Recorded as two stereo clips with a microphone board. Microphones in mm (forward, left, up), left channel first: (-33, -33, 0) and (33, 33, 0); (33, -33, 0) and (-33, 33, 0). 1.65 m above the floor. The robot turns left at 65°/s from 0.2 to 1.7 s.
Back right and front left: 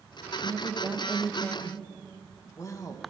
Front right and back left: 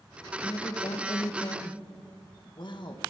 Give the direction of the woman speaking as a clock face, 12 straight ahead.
12 o'clock.